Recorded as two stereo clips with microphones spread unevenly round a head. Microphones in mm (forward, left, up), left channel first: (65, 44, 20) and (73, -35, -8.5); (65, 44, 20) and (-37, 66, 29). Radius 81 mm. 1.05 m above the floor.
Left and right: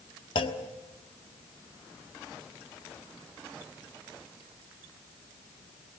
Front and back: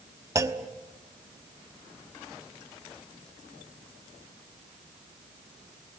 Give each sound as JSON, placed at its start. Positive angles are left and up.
{"t": 0.3, "sound": "a clunk", "azimuth_deg": 110, "distance_m": 1.2}